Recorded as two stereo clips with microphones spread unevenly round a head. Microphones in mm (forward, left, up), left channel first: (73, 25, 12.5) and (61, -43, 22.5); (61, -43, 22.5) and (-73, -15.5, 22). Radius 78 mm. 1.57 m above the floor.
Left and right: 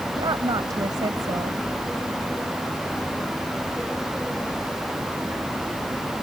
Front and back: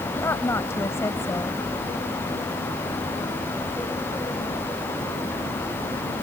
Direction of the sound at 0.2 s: 80° right.